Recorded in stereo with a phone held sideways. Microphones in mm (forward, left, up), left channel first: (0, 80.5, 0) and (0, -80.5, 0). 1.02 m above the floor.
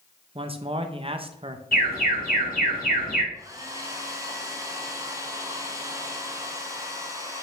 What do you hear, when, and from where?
0.3 s a man speaking: 35° right (ahead or behind), 0.8 m
1.7 s an alarm: 65° left (ahead or behind), 3 m
3.3 s a hair dryer: 20° right (ahead or behind), 1.2 m